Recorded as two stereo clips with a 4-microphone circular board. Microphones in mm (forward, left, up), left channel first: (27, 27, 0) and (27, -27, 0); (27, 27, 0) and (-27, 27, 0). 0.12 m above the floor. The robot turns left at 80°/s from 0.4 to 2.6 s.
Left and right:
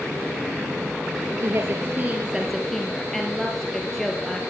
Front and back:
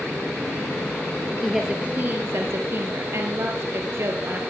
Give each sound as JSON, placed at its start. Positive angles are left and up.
{"t": 1.4, "sound": "a woman speaking", "azimuth_deg": -90, "distance_m": 2.5}